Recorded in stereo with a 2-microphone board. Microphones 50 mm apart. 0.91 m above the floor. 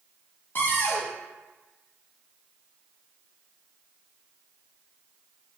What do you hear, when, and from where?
0.6 s a cupboard door: 40° left (ahead or behind), 0.7 m